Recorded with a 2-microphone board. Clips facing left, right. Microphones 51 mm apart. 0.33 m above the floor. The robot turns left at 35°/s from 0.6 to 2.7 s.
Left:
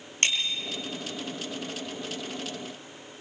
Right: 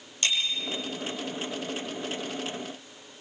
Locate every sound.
0.2 s a bicycle bell: 55° left (ahead or behind), 5.5 m